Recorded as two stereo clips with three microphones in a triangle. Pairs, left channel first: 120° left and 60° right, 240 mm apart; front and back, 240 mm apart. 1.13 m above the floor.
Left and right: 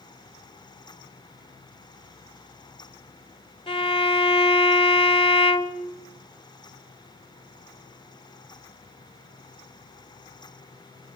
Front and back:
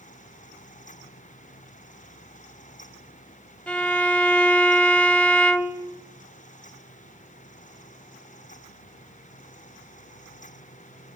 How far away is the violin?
About 0.9 m.